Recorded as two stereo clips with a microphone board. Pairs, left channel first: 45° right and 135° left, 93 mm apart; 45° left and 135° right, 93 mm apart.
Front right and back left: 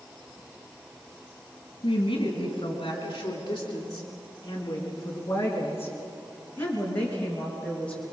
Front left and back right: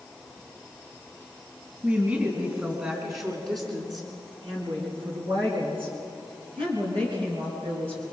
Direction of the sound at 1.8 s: 65° right.